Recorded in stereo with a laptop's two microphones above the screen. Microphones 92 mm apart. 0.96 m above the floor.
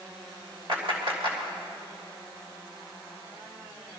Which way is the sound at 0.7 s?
70° right (ahead or behind).